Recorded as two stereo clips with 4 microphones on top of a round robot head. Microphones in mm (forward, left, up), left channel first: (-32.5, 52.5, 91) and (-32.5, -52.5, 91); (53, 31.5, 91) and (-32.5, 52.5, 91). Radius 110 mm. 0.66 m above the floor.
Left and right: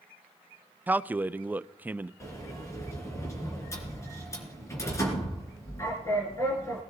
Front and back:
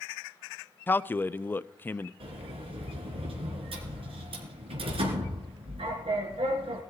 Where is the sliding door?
155° left, 3 m.